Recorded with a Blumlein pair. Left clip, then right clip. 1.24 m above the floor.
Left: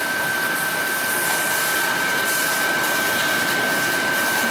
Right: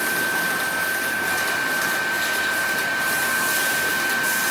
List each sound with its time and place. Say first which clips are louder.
0.0 s a fan: left 1 dB; 55° left, 1.7 m